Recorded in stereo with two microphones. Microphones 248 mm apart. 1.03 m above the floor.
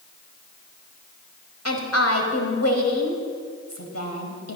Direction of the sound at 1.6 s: 80° left.